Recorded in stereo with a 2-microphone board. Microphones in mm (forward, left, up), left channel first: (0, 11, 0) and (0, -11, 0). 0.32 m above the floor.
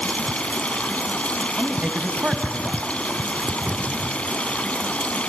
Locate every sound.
0.0 s running water: 70° left (ahead or behind), 1.0 m
1.6 s a man speaking: 40° right (ahead or behind), 2.0 m
3.7 s a cupboard door: 60° right (ahead or behind), 3 m